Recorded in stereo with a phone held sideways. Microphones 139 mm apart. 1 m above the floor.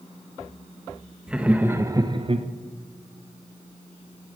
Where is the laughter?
5° right (ahead or behind), 1.0 m; by 2.5 s 45° right (ahead or behind), 0.5 m.